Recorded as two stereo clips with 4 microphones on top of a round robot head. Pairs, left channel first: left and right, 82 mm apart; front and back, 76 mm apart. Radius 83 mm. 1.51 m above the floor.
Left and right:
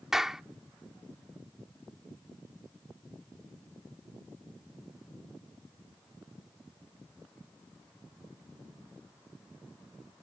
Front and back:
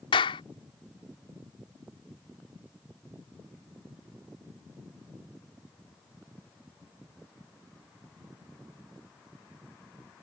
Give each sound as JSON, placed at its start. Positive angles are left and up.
{"t": 0.1, "sound": "a clap", "azimuth_deg": -5}